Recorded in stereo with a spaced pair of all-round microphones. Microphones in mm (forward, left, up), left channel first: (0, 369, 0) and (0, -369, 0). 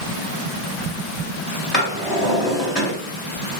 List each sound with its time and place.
1.7 s a drawer: 15° left (ahead or behind), 1.7 m